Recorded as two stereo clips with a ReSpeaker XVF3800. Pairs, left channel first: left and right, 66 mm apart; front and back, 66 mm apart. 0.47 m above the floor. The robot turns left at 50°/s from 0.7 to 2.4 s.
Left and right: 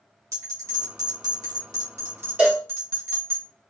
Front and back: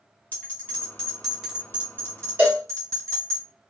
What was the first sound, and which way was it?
A bell, 60° right.